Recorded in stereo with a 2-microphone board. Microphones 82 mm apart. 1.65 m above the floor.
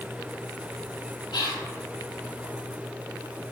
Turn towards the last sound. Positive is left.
turn(degrees=65)  # may be behind; listen again after turning